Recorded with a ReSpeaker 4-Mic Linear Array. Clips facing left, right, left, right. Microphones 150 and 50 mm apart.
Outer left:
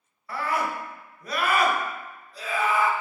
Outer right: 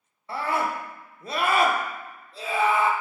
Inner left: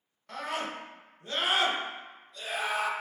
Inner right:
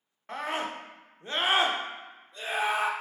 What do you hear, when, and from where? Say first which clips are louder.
0.3 s a scream: outer right 1 dB, inner right 2 dB; 25° right (ahead or behind), 0.7 m